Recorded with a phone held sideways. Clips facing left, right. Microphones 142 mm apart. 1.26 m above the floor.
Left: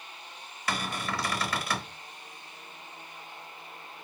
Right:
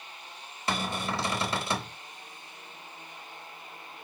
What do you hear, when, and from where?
0.7 s a cupboard door: 25° right (ahead or behind), 0.7 m